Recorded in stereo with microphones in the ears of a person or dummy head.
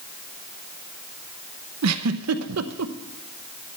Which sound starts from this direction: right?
A giggle, at 1.8 s.